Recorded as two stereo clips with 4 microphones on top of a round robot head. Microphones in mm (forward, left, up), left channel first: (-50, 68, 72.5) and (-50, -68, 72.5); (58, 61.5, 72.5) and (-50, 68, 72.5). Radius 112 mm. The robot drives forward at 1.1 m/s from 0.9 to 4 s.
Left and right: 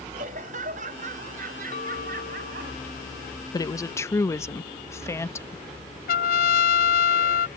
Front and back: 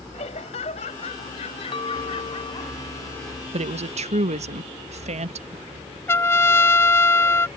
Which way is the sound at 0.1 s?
50° right.